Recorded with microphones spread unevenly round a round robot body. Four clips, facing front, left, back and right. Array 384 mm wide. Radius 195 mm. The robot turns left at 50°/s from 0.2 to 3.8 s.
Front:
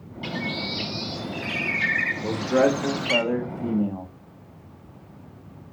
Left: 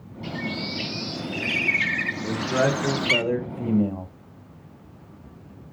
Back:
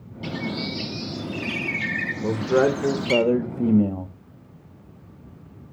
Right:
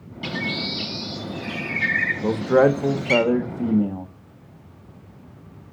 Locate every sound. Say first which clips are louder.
0.2 s a bird: right 2 dB, back 1 dB; 155° right, 0.7 m; by 3.2 s 55° left, 0.7 m
2.2 s a man speaking: right 7 dB, back 1 dB; 100° right, 1.0 m; by 4.1 s straight behind, 1.0 m